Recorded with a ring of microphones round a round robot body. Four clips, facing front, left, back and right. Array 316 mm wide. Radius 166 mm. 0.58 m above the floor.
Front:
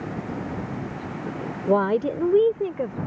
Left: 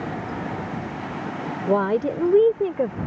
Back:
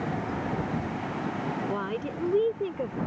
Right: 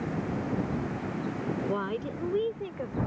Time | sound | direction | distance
1.7 | a woman speaking | 40° left | ?